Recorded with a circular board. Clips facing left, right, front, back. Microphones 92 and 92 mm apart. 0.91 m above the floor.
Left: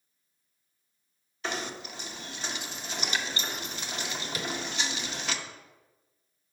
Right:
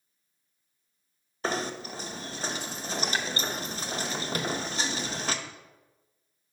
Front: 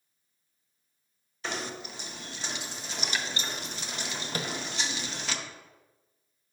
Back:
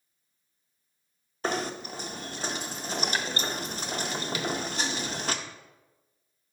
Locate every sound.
1.4 s knocking: 140° right, 0.5 m
4.3 s tapping: 50° right, 0.5 m